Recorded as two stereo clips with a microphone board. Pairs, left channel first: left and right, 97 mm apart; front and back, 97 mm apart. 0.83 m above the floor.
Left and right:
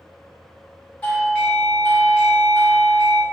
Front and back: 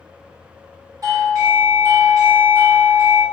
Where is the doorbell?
155° left, 1.0 m.